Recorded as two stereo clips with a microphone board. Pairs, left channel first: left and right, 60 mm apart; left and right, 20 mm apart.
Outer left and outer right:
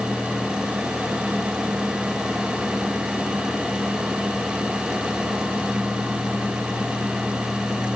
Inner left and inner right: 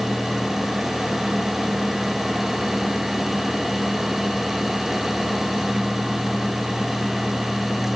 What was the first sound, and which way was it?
Only background noise.